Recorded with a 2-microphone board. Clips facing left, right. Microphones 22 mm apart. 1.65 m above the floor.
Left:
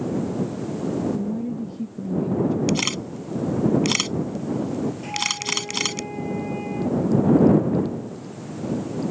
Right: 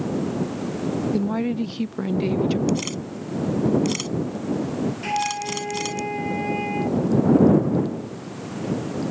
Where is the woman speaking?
65° right (ahead or behind).